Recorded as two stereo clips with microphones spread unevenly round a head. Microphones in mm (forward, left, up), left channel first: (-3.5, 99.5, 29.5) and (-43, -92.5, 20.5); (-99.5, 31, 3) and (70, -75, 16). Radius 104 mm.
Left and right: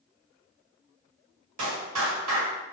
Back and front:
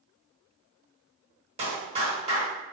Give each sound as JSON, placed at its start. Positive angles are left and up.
{"t": 1.6, "sound": "a clap", "azimuth_deg": -90, "distance_m": 1.4}